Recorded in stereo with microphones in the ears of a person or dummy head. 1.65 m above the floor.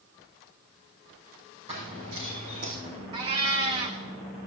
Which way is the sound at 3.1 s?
25° right (ahead or behind).